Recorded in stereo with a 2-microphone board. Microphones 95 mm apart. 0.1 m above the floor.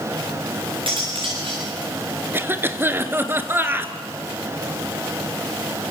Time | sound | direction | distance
0.9 | cutlery clinking | 65° right (ahead or behind) | 6 m
2.3 | a cough | 25° right (ahead or behind) | 1.6 m